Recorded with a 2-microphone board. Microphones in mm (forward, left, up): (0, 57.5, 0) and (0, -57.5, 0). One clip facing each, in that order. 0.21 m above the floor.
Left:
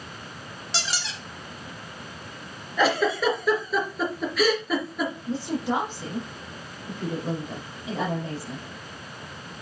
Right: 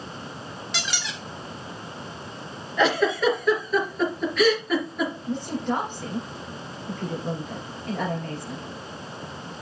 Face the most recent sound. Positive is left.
turn(degrees=5)  # may be behind; listen again after turning